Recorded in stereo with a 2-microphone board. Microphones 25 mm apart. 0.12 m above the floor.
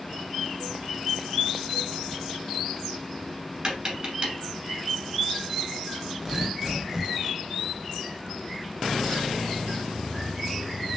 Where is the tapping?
30° right (ahead or behind), 1.4 m.